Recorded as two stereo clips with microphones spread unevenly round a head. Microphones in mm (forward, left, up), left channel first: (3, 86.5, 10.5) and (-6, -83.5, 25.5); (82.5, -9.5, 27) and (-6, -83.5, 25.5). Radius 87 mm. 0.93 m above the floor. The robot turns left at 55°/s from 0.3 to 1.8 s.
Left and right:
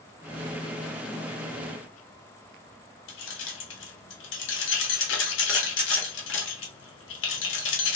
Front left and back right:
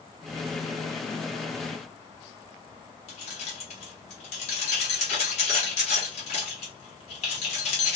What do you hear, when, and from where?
3.1 s keys jangling: 85° left, 0.9 m